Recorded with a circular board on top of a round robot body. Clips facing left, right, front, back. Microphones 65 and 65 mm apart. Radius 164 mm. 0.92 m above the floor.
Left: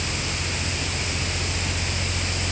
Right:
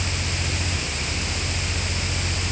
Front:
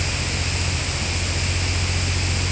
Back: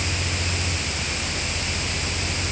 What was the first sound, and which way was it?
Only background noise.